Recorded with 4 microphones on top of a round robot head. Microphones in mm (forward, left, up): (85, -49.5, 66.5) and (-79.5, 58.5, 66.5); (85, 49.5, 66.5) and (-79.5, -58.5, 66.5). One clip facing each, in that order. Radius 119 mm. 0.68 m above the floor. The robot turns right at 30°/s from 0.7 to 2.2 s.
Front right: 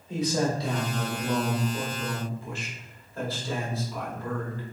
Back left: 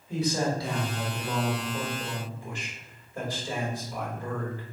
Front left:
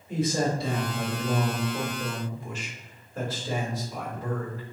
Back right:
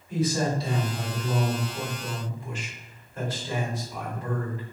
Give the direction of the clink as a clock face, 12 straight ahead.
No clink in this recording.